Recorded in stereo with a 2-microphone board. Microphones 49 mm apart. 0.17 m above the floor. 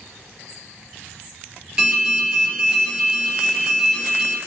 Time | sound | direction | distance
1.8 | an alarm | 15° right (ahead or behind) | 3 m